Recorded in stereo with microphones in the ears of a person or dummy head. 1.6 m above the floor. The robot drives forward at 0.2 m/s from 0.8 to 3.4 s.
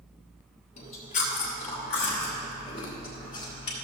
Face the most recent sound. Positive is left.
turn(degrees=25)  # may be behind; listen again after turning